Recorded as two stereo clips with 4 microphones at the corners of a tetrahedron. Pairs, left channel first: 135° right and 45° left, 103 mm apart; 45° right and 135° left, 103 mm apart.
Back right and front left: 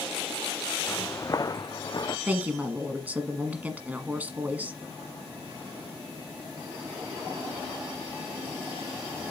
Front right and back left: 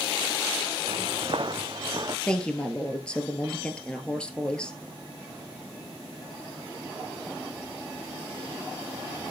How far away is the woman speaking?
About 1.3 m.